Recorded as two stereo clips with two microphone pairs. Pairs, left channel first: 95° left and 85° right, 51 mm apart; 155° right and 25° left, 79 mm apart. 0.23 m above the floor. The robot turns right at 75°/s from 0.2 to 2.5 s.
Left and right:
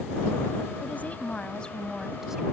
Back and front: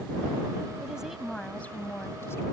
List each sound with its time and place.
0.8 s a woman speaking: 90° left; by 2.4 s 150° right